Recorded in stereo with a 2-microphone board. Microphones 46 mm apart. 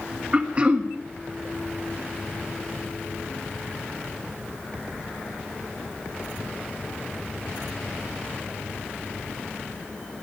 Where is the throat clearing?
25° right (ahead or behind), 1.5 m.